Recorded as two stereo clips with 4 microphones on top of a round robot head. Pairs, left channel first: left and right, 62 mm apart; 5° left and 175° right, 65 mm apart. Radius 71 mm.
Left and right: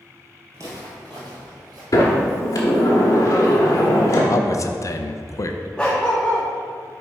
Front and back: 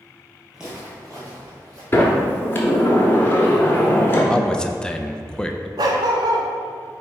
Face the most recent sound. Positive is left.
turn(degrees=170)